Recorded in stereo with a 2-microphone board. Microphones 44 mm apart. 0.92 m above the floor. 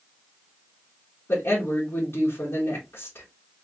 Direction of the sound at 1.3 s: 60° left (ahead or behind).